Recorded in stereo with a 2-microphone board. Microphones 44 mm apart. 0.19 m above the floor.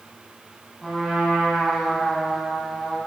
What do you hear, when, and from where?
0.8 s a trumpet: centre (ahead or behind), 5 m